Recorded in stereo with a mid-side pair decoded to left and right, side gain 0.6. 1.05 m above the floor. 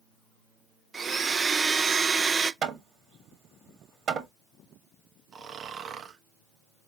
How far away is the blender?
About 0.6 m.